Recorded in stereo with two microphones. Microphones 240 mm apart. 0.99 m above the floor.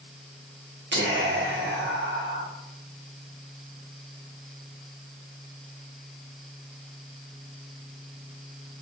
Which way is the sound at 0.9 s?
50° right (ahead or behind).